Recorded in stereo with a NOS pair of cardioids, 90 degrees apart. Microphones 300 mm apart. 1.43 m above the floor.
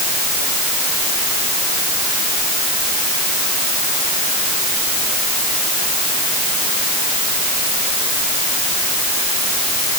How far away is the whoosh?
No whoosh in this recording.